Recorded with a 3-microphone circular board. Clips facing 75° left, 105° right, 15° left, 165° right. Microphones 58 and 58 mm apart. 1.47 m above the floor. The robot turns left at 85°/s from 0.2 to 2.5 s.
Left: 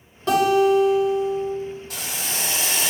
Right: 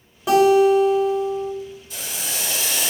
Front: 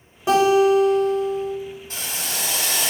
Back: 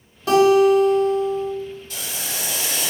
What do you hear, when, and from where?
0.3 s a guitar: 30° right, 1.3 m; by 1.5 s 140° right, 1.3 m
1.9 s boiling: 70° left, 1.4 m; by 2.9 s 20° left, 1.4 m